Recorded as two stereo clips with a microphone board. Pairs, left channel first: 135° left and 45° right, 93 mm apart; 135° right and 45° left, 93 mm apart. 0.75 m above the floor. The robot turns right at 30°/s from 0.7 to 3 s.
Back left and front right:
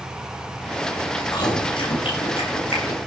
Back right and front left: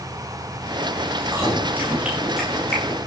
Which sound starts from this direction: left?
Chewing, at 1.2 s.